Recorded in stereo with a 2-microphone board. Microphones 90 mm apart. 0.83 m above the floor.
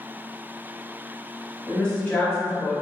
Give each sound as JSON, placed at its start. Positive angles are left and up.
{"t": 1.7, "sound": "a woman speaking", "side_deg": 5, "distance_m": 1.2}